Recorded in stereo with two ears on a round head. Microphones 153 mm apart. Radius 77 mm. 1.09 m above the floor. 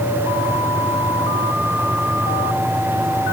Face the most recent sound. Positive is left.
No sound to turn to.